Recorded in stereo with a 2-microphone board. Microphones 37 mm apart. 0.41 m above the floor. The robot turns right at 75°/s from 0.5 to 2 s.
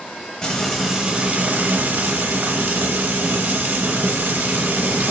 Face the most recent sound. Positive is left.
turn(degrees=-90)